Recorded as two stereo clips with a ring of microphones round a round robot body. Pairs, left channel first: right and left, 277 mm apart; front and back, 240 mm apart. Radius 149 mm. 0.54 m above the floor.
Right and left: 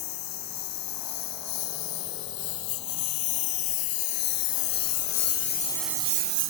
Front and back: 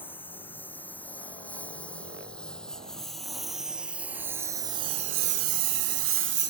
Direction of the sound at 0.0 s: 85° right.